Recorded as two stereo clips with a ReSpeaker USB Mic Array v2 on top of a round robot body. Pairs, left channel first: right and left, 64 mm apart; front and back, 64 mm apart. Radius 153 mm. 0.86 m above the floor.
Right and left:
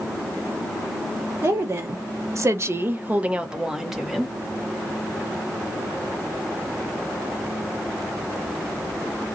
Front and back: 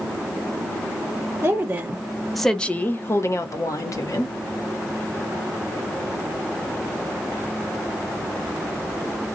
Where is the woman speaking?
125° left, 0.9 m; by 4.4 s straight ahead, 1.1 m.